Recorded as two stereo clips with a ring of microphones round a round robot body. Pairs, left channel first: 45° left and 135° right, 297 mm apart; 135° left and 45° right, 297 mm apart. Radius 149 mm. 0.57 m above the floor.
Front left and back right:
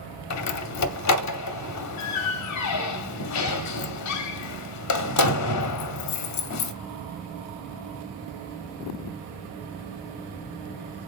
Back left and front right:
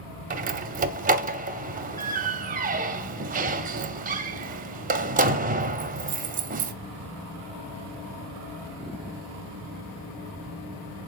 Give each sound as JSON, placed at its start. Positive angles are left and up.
{"t": 0.3, "sound": "a door slam", "azimuth_deg": 15, "distance_m": 0.9}